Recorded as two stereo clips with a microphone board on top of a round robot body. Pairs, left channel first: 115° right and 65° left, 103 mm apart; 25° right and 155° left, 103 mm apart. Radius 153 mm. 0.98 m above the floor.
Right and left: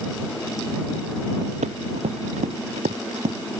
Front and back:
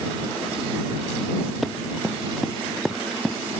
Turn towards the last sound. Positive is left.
turn(degrees=70)